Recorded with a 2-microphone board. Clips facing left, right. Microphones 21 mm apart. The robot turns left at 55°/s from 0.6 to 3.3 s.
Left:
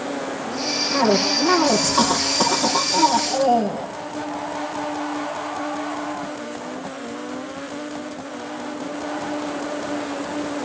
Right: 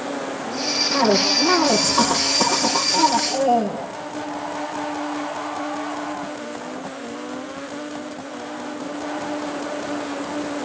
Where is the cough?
165° right, 4.5 m; by 3.9 s 65° left, 4.5 m.